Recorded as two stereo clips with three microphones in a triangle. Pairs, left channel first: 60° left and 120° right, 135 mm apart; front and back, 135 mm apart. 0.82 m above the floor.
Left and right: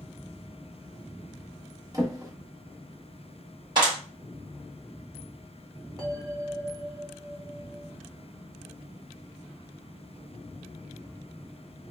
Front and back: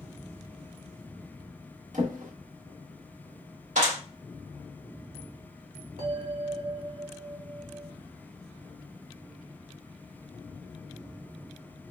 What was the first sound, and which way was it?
A drawer, straight behind.